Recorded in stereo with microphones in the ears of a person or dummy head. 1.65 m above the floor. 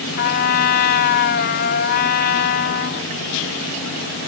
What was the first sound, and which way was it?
A trumpet, 60° left (ahead or behind).